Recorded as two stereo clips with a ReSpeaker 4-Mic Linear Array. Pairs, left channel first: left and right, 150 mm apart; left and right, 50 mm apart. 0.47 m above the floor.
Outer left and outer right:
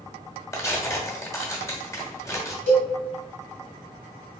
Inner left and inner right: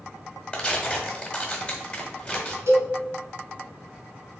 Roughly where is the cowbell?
Right.